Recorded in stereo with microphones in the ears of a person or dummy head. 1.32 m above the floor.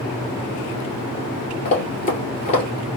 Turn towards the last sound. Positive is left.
turn(degrees=35)  # may be behind; listen again after turning